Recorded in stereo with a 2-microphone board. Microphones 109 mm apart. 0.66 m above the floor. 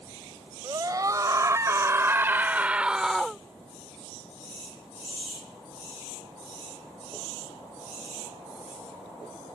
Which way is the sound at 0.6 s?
35° right (ahead or behind).